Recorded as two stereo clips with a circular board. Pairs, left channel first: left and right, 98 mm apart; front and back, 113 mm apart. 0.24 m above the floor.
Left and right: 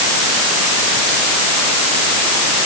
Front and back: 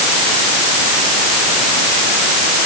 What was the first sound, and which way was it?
Only background noise.